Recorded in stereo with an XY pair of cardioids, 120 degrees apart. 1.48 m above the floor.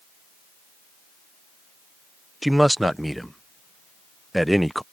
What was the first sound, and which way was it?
A man speaking, 5° right.